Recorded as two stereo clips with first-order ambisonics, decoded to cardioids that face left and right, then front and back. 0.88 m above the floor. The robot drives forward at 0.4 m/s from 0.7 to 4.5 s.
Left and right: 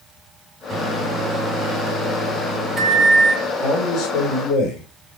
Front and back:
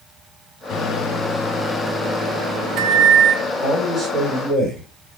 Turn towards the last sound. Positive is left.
turn(degrees=115)